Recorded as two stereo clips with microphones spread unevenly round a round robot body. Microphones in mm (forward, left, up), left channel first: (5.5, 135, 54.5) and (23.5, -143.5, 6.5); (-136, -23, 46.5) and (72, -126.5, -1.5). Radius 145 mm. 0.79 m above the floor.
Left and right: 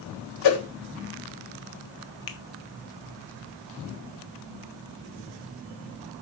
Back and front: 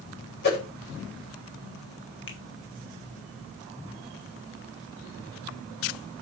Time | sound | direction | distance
0.4 | a whoosh | 95° left | 4 m
2.3 | a finger snap | 100° left | 1.1 m